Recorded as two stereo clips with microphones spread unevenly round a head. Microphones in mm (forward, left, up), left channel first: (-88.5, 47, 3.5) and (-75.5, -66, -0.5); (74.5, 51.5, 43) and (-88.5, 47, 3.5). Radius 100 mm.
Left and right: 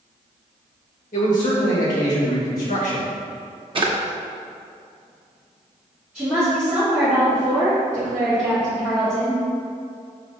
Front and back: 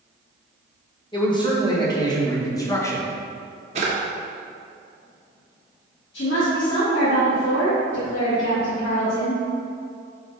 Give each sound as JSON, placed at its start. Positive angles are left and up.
{"t": 1.1, "sound": "a man speaking", "azimuth_deg": 65, "distance_m": 2.5}
{"t": 3.8, "sound": "a drawer", "azimuth_deg": -115, "distance_m": 1.1}
{"t": 6.1, "sound": "a woman speaking", "azimuth_deg": 0, "distance_m": 2.5}